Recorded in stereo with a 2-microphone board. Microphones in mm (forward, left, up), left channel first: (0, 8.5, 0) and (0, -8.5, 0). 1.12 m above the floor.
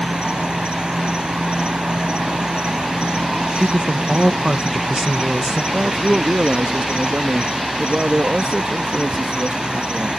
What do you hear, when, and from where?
0.0 s an insect: 70° right (ahead or behind)
3.5 s a woman speaking: 60° right (ahead or behind)
5.7 s a man speaking: 80° right